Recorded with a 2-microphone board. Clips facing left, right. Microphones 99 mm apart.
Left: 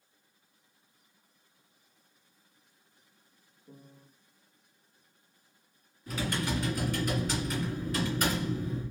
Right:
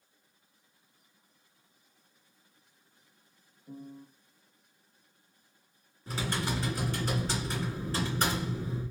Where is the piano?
45° right (ahead or behind), 1.7 m.